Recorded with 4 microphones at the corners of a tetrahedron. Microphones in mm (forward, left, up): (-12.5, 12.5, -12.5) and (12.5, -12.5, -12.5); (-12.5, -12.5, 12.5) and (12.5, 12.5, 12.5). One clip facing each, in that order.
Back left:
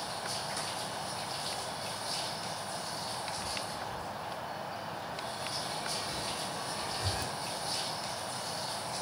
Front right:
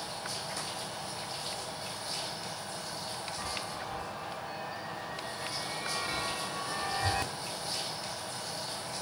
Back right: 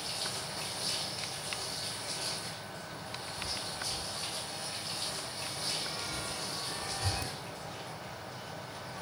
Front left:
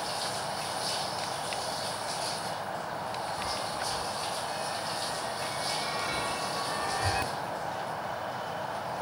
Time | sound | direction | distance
0.0 | an insect | 60° left | 0.9 m
3.4 | a chime | 5° left | 1.2 m